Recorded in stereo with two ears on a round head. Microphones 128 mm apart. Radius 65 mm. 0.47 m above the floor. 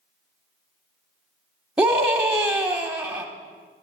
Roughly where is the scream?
Centre.